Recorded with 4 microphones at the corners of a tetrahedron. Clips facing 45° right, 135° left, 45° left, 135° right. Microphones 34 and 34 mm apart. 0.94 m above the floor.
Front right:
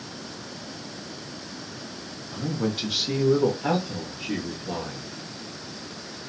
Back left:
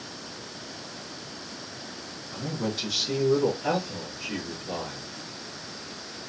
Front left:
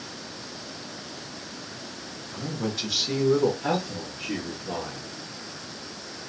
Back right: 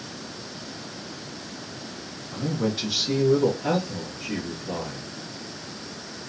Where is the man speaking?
125° right, 0.7 m; by 5.1 s 5° right, 1.4 m.